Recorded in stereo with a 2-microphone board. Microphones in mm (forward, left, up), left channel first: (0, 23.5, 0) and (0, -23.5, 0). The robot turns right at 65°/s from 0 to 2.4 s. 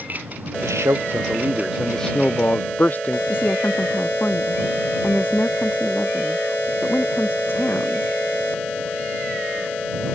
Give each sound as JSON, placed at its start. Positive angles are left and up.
{"t": 0.6, "sound": "a man speaking", "azimuth_deg": -80}
{"t": 3.3, "sound": "a woman speaking", "side_deg": 45}